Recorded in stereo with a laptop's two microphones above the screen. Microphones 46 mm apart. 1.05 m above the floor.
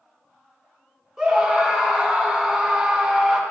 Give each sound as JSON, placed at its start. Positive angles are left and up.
{"t": 1.2, "sound": "a scream", "side_deg": -5, "distance_m": 2.5}